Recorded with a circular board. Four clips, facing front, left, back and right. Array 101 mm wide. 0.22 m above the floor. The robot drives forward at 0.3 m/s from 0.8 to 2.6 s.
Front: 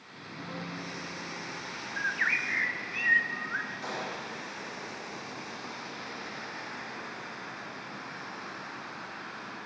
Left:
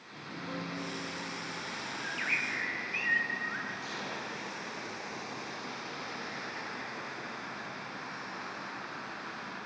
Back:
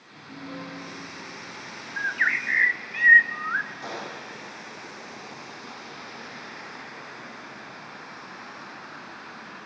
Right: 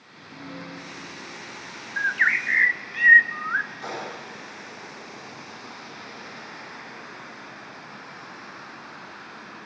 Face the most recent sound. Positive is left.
turn(degrees=-140)